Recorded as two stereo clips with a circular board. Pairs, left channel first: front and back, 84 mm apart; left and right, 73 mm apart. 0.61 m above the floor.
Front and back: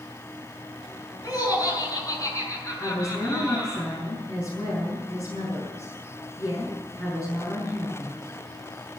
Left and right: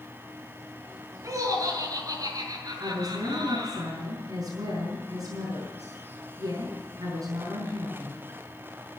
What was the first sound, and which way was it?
Laughter, 45° right.